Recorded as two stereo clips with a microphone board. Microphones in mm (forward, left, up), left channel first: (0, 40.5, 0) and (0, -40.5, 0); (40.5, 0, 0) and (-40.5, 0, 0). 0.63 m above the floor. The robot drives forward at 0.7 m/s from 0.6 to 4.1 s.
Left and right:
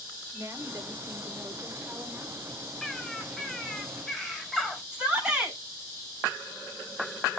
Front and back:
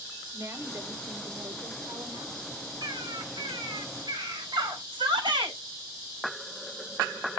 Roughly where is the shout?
Behind.